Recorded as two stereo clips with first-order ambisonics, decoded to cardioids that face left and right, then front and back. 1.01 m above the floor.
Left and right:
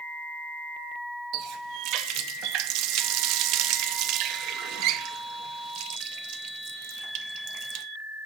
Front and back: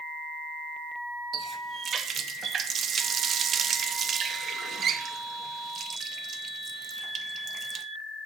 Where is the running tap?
120° right, 0.7 m.